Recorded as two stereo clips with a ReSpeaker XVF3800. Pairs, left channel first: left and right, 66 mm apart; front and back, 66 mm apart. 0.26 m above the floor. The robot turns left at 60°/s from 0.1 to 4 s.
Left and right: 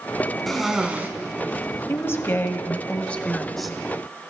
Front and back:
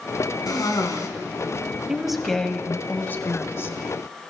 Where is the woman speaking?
105° left, 1.2 m; by 3.8 s 5° right, 1.2 m.